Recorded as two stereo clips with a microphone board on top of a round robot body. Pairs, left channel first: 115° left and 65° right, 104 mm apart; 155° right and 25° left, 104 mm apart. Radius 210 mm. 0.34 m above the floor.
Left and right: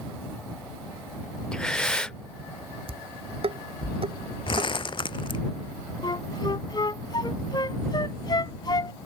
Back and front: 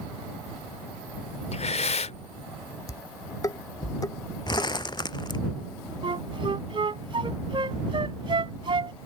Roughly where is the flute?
Ahead left.